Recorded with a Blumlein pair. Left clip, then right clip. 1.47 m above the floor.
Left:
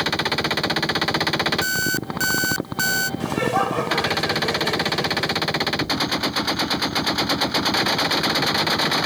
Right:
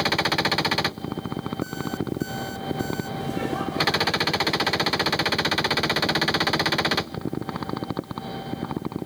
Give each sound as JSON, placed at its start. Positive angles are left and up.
{"t": 1.6, "sound": "an alarm clock", "azimuth_deg": 40}
{"t": 3.2, "sound": "laughter", "azimuth_deg": 60}